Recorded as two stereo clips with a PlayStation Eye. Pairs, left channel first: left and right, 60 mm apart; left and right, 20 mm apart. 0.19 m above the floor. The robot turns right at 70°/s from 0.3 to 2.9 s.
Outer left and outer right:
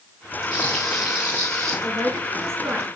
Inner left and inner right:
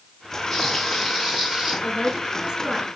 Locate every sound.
0.5 s frying: 160° left, 3 m; by 1.7 s 115° right, 3 m
1.8 s a man speaking: 100° right, 3 m; by 2.9 s 25° right, 3 m